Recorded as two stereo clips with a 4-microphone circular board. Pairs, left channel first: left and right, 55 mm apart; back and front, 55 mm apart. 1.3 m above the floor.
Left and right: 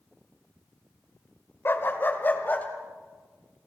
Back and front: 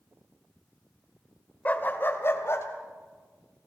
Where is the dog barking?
125° left, 1.5 m; by 2.7 s 150° left, 2.5 m.